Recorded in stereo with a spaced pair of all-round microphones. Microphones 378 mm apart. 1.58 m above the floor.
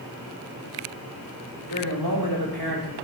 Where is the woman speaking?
90° left, 3 m.